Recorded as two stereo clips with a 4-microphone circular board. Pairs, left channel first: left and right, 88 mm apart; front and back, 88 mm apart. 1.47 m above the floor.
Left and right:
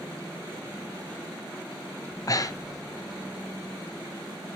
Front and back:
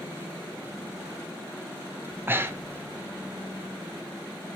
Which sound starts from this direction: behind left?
Breathing, at 2.1 s.